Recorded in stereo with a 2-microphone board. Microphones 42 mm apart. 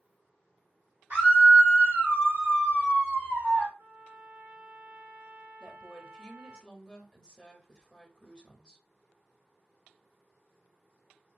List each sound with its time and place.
1.1 s a scream: 55° right (ahead or behind), 2.5 m
3.8 s a trumpet: 60° right (ahead or behind), 2.5 m
5.6 s a woman speaking: 20° left (ahead or behind), 0.9 m